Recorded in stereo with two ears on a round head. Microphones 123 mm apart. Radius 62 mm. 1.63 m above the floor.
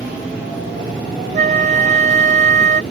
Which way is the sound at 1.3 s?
50° right (ahead or behind).